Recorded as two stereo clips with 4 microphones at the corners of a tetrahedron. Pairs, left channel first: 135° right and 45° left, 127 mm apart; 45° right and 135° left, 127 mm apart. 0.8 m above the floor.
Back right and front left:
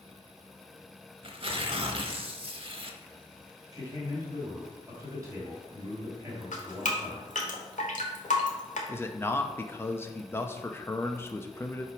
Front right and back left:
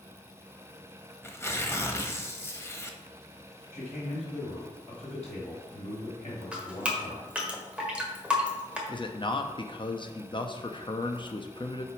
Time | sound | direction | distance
1.2 | tearing paper | 20° left | 0.8 m
3.7 | a man speaking | 20° right | 3 m
6.5 | dripping | 145° right | 1.3 m
8.9 | a man speaking | 70° right | 0.7 m